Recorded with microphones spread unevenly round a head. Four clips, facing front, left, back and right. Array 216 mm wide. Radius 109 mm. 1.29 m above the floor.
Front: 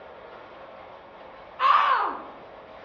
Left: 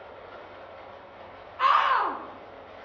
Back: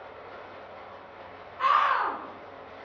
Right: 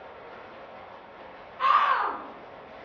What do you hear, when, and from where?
0.0 s running water: 100° right, 2 m
1.6 s a scream: 50° left, 0.6 m